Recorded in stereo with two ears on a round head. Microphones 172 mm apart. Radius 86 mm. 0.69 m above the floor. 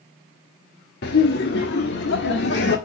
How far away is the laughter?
About 1.1 m.